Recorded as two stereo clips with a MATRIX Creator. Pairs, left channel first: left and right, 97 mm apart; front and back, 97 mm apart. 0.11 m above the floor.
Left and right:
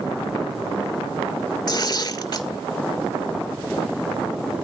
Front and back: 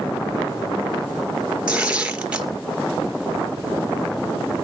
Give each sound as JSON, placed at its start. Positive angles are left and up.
{"t": 1.7, "sound": "tearing paper", "azimuth_deg": 105, "distance_m": 1.9}